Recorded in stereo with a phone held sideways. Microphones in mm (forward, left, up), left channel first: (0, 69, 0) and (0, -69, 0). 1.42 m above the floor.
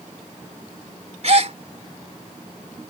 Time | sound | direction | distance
1.2 | a gasp | 50° right (ahead or behind) | ?